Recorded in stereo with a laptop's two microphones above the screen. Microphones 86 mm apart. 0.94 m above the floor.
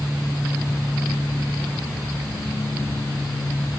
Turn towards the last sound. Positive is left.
No sound to turn to.